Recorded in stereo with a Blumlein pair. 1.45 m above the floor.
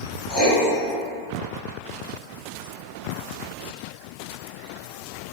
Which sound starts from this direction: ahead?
Writing, at 0.3 s.